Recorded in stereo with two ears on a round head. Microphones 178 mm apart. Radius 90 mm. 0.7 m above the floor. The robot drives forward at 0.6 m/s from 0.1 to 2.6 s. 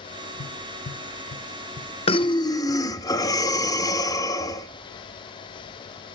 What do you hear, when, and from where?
0.4 s tapping: 65° left (ahead or behind), 0.9 m; by 2.8 s 35° left (ahead or behind), 1.5 m
2.1 s breathing: 30° left (ahead or behind), 0.5 m; by 4.7 s 20° left (ahead or behind), 0.8 m